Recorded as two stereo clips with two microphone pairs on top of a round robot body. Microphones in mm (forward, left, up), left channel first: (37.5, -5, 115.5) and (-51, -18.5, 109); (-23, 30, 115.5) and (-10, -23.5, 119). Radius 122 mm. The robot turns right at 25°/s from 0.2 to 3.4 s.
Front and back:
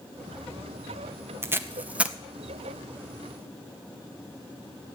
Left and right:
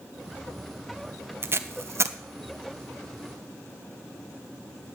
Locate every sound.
1.4 s tape being pulled: 115° right, 1.1 m; by 2.2 s 95° right, 1.1 m